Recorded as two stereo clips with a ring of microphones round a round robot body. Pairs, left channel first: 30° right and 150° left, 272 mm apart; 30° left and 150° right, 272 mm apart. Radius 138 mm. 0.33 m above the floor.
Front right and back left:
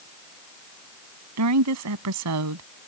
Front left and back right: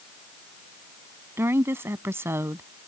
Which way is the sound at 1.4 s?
130° left.